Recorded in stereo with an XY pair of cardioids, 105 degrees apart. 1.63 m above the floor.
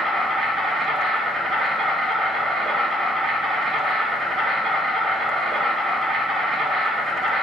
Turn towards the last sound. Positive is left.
turn(degrees=-50)